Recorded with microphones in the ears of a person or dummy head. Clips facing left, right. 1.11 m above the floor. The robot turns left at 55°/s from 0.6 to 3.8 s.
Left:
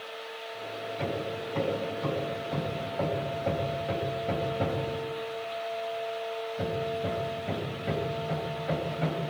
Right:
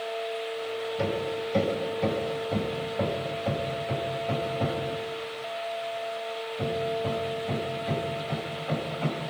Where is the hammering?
40° right (ahead or behind), 6.5 m; by 9.2 s 15° left (ahead or behind), 6.5 m.